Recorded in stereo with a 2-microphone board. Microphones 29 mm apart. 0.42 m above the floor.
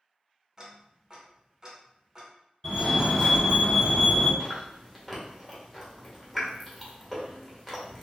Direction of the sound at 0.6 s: 25° right (ahead or behind).